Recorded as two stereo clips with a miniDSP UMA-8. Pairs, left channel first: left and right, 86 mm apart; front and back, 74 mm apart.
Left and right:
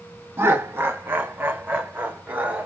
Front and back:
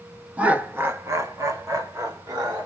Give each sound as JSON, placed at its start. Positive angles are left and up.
{"t": 0.4, "sound": "laughter", "azimuth_deg": -125, "distance_m": 0.7}